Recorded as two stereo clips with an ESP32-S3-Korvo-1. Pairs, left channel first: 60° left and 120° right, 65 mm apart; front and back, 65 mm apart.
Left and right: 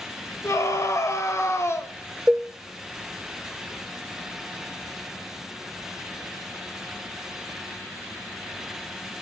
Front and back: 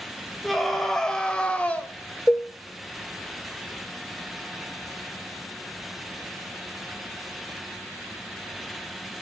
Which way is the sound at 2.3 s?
50° right.